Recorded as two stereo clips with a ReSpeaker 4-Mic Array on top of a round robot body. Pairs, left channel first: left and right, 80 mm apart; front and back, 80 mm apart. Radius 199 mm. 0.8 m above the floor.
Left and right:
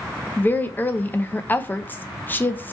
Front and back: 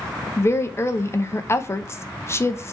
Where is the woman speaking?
35° left, 0.8 m.